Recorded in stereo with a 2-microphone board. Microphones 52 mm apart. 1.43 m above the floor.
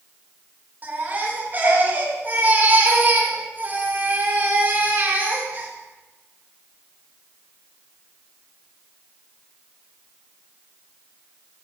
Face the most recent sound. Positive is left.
turn(degrees=-35)  # may be behind; listen again after turning